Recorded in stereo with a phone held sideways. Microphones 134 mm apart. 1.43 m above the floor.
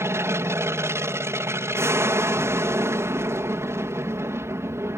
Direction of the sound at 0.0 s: 20° right (ahead or behind).